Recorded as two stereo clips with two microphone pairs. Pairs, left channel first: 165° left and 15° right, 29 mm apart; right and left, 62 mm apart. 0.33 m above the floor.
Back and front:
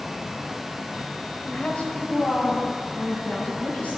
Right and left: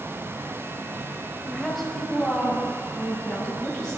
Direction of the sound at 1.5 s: Straight behind.